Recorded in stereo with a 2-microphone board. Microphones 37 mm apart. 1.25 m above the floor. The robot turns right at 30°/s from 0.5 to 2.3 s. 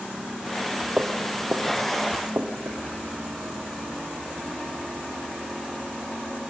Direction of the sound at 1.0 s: 35° right (ahead or behind).